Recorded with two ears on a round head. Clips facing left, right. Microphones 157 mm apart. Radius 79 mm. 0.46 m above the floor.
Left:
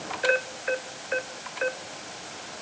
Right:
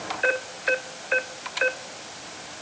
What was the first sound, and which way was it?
Only background noise.